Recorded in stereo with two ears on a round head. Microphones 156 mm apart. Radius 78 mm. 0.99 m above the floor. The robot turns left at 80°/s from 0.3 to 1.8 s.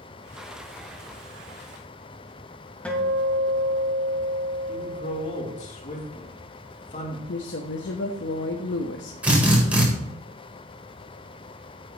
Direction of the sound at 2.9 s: 5° left (ahead or behind).